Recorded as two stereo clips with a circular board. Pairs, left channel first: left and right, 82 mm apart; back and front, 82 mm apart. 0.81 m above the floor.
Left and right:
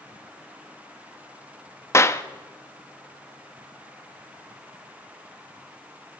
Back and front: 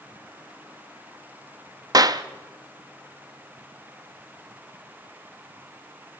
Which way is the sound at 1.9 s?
35° left.